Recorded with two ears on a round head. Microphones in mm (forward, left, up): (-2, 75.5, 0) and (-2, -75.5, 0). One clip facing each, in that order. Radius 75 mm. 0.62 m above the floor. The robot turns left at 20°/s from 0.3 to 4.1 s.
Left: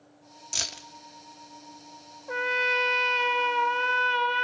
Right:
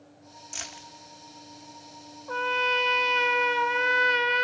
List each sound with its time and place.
0.5 s keys jangling: 45° left (ahead or behind), 0.5 m; by 0.9 s 50° left (ahead or behind), 0.5 m
2.3 s a trumpet: 15° left, 0.6 m; by 4.4 s 20° right, 0.6 m